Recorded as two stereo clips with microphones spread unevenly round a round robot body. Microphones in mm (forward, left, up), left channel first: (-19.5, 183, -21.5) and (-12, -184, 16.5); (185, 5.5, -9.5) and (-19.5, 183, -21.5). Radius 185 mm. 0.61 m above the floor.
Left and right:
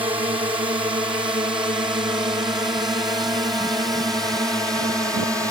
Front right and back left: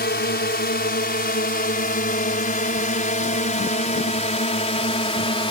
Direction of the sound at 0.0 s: 10° right.